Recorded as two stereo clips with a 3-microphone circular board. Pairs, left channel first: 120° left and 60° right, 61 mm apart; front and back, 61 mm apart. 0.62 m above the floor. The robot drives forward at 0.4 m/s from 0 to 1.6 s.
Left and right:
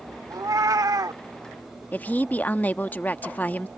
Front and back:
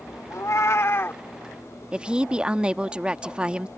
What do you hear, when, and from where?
0.3 s a cat meowing: 40° right; by 1.2 s 55° right
1.9 s a woman speaking: 130° left